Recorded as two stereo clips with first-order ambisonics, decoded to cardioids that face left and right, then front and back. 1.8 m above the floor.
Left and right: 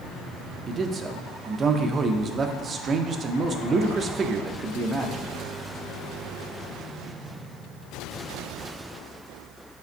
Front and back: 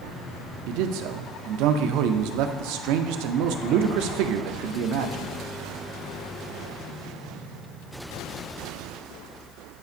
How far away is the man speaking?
About 0.6 m.